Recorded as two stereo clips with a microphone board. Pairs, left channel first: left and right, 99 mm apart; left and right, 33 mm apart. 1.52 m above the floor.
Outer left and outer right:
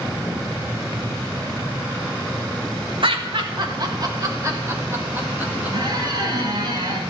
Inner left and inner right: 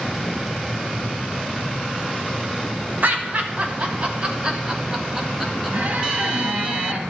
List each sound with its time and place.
3.0 s laughter: 55° right (ahead or behind), 1.6 m; by 5.8 s 15° right (ahead or behind), 2 m
5.7 s a squeak: 45° right (ahead or behind), 2.0 m